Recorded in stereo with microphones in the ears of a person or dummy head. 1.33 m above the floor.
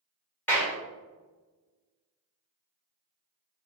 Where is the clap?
10° left (ahead or behind), 1.5 m.